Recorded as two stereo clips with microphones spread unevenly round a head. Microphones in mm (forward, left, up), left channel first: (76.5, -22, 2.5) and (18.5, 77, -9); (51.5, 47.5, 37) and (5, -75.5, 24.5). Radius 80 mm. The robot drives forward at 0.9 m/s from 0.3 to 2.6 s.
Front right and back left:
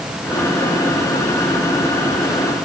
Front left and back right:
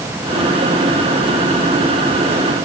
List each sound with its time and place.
Only background noise.